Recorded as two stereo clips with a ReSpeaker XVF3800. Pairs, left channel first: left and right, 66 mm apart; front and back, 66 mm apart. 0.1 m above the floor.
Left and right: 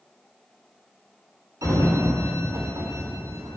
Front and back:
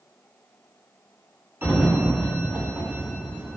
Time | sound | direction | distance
1.6 | a sliding door | 125° right | 3 m